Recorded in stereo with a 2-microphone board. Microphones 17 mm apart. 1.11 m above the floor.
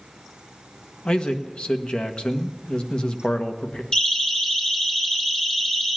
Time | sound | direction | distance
1.1 | a man speaking | 75° left (ahead or behind) | 1.3 m
3.9 | a siren | 50° left (ahead or behind) | 4 m